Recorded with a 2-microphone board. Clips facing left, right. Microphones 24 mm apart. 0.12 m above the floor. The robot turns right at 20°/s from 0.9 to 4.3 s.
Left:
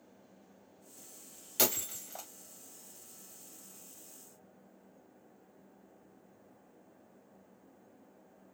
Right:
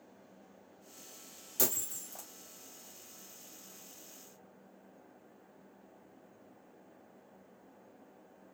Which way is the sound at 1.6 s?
45° left (ahead or behind).